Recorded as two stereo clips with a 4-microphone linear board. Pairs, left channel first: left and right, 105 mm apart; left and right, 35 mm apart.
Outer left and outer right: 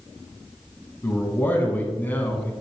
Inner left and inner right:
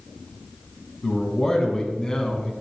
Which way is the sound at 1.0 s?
20° left (ahead or behind).